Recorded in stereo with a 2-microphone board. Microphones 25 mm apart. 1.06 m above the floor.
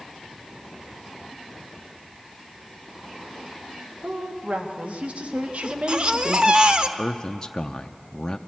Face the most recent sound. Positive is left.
turn(degrees=20)  # may be behind; listen again after turning